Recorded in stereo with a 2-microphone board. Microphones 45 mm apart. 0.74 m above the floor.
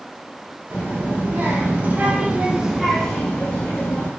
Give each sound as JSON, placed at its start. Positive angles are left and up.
{"t": 0.7, "sound": "a child speaking", "side_deg": -45, "distance_m": 1.6}